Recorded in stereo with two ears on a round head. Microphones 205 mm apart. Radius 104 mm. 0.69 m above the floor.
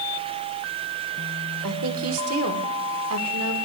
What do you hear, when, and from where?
1.6 s a woman speaking: 70° right (ahead or behind), 1.6 m